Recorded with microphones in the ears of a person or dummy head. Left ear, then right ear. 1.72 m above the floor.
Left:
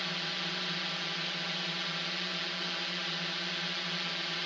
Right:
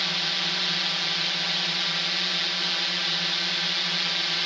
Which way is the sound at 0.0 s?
35° right (ahead or behind).